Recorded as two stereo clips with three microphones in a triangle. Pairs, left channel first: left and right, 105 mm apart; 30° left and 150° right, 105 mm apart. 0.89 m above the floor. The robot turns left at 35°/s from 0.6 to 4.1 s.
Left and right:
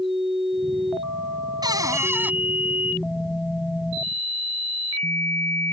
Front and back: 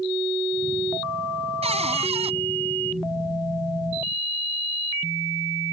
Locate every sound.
1.6 s a cupboard door: 140° right; by 2.3 s 165° right